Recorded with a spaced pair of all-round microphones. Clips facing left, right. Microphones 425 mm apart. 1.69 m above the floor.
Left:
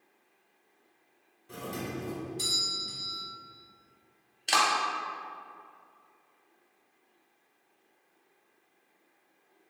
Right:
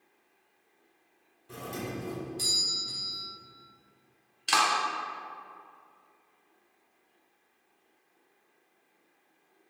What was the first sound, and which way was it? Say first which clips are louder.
A doorbell: even; centre (ahead or behind).